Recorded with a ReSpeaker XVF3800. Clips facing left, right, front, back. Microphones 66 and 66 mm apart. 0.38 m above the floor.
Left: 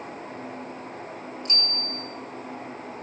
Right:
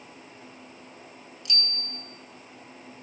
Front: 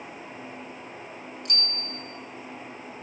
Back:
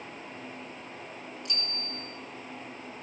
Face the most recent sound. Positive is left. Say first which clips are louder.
# left 1 dB, front 5 dB
turn(degrees=35)